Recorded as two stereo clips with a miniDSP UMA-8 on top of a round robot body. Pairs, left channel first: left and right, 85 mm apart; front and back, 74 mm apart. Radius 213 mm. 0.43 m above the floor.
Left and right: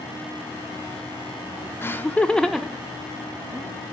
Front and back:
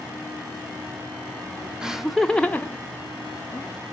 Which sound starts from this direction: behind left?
Laughter, at 1.8 s.